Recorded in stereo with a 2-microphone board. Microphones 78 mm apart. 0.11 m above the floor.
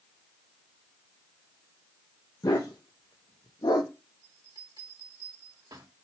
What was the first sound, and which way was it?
A dog barking, 55° left (ahead or behind).